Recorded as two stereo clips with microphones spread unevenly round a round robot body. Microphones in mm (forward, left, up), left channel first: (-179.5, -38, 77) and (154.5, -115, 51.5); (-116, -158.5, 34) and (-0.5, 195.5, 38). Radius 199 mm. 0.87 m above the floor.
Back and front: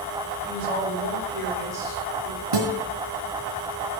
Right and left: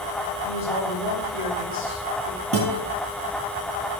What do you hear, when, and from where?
0.4 s a woman speaking: 50° right, 5 m
2.5 s a guitar: 15° left, 4 m